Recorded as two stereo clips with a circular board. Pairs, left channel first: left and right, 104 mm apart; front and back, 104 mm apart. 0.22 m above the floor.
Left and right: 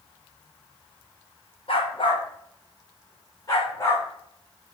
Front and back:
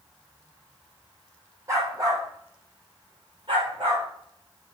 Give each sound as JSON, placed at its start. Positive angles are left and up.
{"t": 1.7, "sound": "a dog barking", "azimuth_deg": 120, "distance_m": 2.5}